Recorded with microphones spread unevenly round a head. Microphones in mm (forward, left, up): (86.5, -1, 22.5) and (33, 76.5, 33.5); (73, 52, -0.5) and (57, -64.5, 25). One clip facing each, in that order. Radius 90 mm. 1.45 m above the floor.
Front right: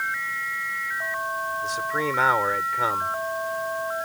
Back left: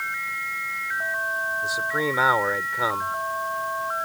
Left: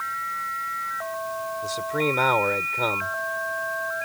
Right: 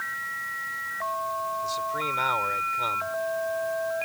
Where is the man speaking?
45° left.